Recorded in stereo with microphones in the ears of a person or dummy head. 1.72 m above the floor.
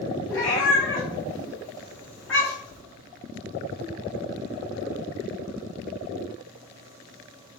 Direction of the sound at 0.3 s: Centre (ahead or behind).